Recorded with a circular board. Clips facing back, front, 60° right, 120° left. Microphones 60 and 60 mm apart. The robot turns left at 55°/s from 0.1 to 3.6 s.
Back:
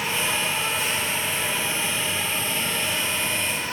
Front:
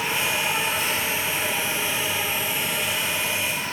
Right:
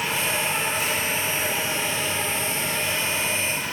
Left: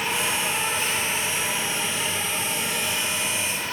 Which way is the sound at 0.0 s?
60° left.